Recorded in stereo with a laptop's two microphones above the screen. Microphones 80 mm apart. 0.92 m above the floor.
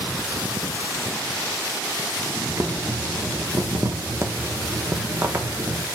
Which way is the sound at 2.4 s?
35° right (ahead or behind).